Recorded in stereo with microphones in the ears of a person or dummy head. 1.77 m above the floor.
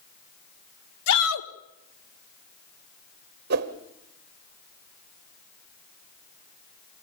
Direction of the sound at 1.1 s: 75° left (ahead or behind).